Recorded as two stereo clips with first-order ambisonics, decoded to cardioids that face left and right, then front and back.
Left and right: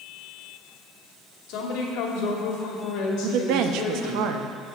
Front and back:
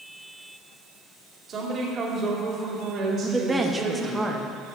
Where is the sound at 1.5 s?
120° left, 2.5 m.